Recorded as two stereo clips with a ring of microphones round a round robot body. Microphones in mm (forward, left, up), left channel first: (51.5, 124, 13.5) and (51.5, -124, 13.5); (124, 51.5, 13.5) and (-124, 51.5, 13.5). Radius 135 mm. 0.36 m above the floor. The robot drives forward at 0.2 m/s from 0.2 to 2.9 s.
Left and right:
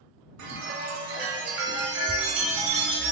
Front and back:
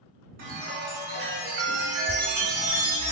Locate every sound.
0.4 s a chime: 120° right, 1.7 m; by 3.1 s 135° right, 2 m